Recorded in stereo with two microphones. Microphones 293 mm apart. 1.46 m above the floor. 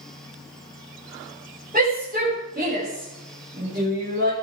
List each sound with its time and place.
1.7 s a shout: 30° right (ahead or behind), 7.5 m; by 4.3 s 40° right (ahead or behind), 6.5 m